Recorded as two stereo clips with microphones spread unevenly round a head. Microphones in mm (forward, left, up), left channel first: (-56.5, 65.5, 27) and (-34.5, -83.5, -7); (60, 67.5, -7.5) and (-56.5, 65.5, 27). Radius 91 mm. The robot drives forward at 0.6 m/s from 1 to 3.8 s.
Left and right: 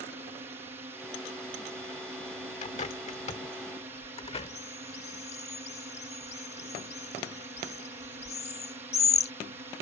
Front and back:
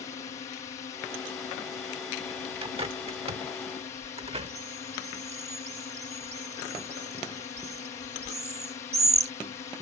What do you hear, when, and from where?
0.0 s a drone: 25° right; by 9.8 s 30° right
2.6 s a bird: 140° left; by 9.3 s 150° left